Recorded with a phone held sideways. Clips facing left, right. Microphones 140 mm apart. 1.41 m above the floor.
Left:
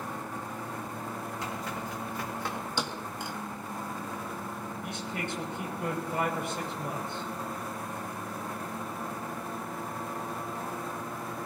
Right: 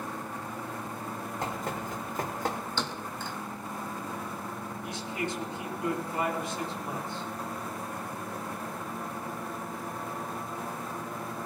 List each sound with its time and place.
1.4 s running footsteps: 50° right (ahead or behind), 3.5 m; by 2.6 s 40° right (ahead or behind), 3 m
2.8 s a thud: 15° left (ahead or behind), 1.4 m
4.8 s a man speaking: 65° left (ahead or behind), 7 m